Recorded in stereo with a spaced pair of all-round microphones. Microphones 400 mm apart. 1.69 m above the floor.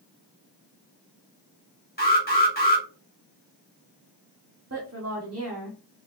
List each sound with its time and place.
2.0 s an alarm: 20° left (ahead or behind), 1.6 m
4.7 s a woman speaking: 35° right (ahead or behind), 0.9 m